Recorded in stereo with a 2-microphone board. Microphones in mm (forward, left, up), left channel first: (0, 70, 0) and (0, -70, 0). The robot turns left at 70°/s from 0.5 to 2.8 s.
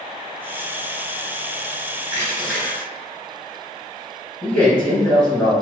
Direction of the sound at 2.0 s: 140° right.